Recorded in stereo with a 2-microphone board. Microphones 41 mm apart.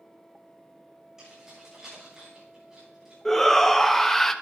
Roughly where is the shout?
Centre.